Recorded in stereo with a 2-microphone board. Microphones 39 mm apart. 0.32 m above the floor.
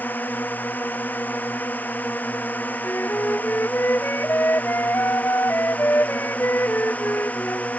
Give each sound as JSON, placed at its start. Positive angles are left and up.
{"t": 0.0, "sound": "a drone", "side_deg": 50}
{"t": 2.8, "sound": "a flute", "side_deg": 70}